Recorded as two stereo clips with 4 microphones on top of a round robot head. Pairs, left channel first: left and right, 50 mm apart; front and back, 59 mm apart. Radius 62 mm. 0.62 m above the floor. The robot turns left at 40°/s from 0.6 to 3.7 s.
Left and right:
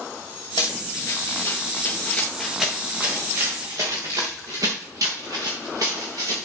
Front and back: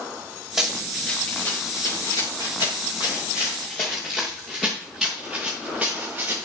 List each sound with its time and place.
0.6 s running footsteps: 95° left, 5.5 m; by 6.5 s 110° right, 4 m